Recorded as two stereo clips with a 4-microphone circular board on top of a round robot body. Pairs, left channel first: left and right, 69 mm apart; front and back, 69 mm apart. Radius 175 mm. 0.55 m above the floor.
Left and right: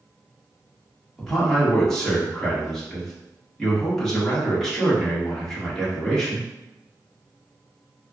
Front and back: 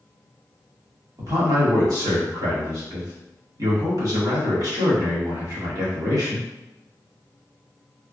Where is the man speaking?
170° left, 1.7 m.